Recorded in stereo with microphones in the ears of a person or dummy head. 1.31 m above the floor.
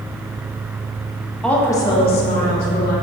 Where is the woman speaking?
5° left (ahead or behind), 1.5 m; by 2.9 s 60° left (ahead or behind), 2.5 m.